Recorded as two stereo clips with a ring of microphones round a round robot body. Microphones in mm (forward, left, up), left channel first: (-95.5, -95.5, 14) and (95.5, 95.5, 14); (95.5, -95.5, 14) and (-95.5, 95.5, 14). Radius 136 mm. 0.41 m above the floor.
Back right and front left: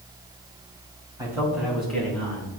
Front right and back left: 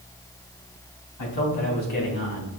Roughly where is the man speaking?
Ahead right.